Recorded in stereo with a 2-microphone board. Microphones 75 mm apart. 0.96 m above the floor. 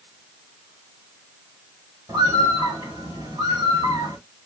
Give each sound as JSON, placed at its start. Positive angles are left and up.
{"t": 2.1, "sound": "a bird", "side_deg": -80, "distance_m": 2.0}